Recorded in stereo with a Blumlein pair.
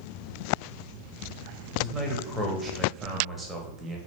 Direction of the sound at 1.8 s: 10° right.